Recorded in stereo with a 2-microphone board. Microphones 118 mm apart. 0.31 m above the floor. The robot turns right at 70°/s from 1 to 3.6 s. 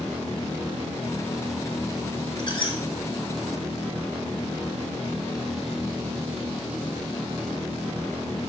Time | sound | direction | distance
2.4 | a squeak | 40° left (ahead or behind) | 1.3 m